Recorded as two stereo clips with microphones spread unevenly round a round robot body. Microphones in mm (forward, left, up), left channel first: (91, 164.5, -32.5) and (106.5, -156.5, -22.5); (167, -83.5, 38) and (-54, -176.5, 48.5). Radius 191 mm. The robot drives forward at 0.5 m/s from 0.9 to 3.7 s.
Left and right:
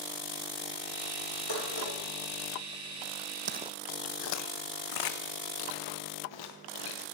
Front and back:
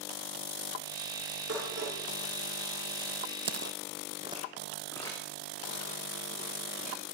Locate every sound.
1.5 s dishes clattering: 140° left, 5 m
3.5 s footsteps: 130° right, 0.8 m; by 7.0 s 95° left, 3.5 m